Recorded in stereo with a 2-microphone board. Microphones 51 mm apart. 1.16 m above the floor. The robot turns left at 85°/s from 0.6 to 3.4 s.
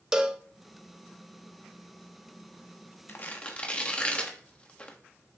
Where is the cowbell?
15° right (ahead or behind), 0.7 m.